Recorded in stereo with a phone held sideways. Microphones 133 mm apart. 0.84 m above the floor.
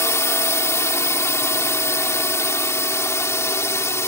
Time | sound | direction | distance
0.0 | a drone | 20° left (ahead or behind) | ?